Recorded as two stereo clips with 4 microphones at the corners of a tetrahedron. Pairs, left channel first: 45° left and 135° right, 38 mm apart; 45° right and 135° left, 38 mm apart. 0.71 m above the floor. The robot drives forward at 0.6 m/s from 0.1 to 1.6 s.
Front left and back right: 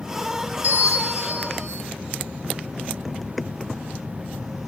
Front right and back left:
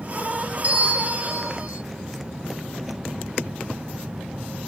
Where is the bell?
175° right, 0.9 m; by 1.8 s straight behind, 1.4 m.